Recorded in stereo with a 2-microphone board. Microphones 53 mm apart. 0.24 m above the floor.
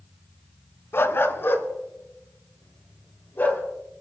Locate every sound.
0.9 s a dog barking: 50° left (ahead or behind), 1.1 m; by 3.6 s 40° left (ahead or behind), 3 m